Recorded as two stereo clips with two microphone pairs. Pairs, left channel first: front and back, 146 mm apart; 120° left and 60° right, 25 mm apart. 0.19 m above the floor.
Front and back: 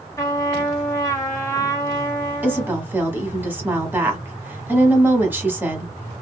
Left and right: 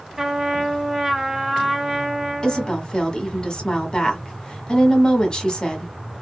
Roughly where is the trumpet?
Ahead right.